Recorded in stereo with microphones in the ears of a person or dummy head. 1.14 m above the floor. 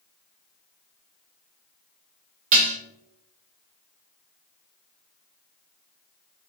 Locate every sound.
2.5 s dishes clattering: 45° right (ahead or behind), 0.5 m